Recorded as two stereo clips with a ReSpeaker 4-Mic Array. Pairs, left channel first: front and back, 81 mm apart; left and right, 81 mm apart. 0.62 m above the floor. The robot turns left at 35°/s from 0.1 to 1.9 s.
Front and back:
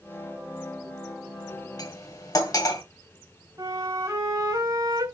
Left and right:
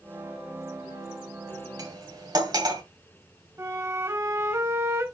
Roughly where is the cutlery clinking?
Ahead right.